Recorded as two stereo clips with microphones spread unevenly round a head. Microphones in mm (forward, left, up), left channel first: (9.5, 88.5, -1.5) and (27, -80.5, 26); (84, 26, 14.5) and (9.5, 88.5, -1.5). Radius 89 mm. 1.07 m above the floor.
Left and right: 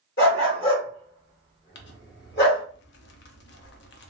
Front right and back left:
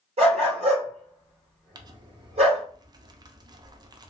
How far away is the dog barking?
About 1.5 m.